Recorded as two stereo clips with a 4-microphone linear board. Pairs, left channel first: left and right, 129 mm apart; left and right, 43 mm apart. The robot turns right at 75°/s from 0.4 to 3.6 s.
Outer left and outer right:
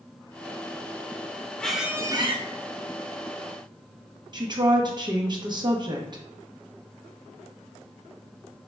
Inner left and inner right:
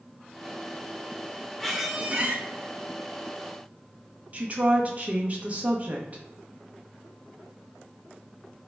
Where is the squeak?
170° left, 0.5 m; by 2.4 s 130° right, 0.5 m.